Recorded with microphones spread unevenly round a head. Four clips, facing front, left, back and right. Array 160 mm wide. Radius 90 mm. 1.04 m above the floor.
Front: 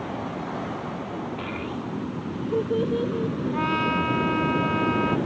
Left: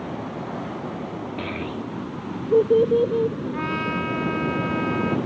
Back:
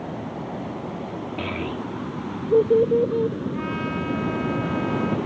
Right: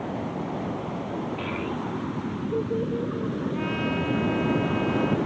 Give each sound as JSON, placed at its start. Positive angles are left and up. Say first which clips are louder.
{"t": 1.4, "sound": "a child speaking", "louder": "even, back 3 dB", "azimuth_deg": 160}
{"t": 3.5, "sound": "a trumpet", "louder": "left 1 dB, front 3 dB", "azimuth_deg": 10}